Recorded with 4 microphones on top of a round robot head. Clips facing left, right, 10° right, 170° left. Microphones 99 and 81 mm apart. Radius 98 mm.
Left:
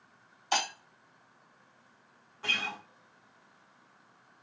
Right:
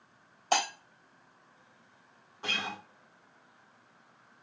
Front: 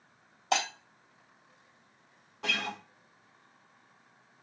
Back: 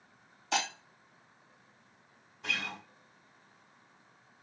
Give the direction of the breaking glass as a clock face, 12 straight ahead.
1 o'clock.